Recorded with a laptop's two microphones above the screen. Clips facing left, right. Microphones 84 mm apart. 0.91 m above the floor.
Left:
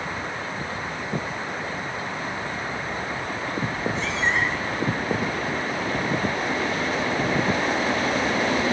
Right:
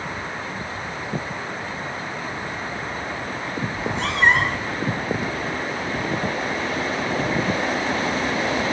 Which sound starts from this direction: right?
A cat meowing, at 3.7 s.